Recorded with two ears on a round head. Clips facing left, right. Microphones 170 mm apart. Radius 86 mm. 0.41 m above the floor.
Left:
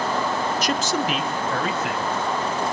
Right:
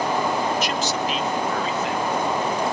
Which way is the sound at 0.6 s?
35° left (ahead or behind).